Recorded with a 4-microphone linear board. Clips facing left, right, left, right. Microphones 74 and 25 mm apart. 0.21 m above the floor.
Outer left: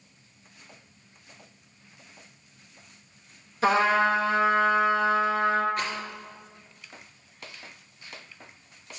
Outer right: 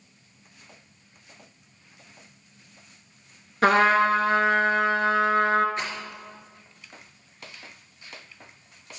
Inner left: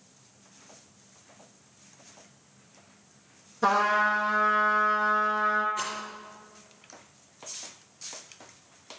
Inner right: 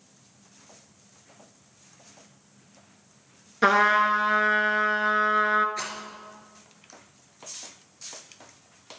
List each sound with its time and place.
3.6 s a trumpet: 70° right (ahead or behind), 1.0 m
5.8 s a rattle: 30° right (ahead or behind), 3.5 m